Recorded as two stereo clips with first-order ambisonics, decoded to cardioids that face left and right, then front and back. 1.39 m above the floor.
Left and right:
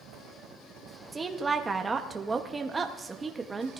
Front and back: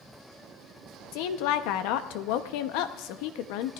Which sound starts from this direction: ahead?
A woman speaking, at 1.1 s.